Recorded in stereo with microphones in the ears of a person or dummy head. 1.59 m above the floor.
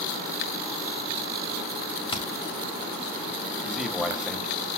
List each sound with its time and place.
2.1 s hammering: 35° left (ahead or behind), 1.4 m
3.6 s a man speaking: 5° right (ahead or behind), 1.3 m